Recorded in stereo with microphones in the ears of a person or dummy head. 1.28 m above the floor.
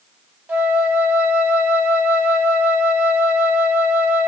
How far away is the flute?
About 0.9 m.